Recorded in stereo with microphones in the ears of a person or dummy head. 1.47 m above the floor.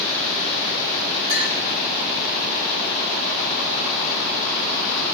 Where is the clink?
25° right (ahead or behind), 4 m.